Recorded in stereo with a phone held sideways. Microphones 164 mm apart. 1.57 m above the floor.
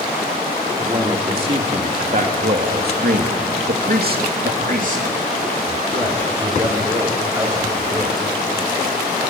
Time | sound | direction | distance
0.8 | a man speaking | 30° right (ahead or behind) | 3.5 m